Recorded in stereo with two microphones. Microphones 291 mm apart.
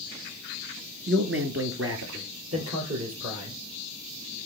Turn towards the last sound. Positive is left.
turn(degrees=-55)  # may be behind; listen again after turning